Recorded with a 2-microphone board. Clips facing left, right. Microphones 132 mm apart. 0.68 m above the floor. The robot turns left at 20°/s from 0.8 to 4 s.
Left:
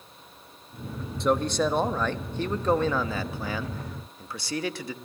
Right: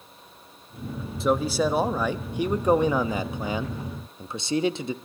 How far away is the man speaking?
About 0.5 m.